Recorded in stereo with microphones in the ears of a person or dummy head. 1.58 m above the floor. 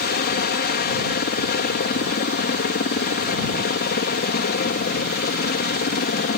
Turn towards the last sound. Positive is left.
turn(degrees=45)  # may be behind; listen again after turning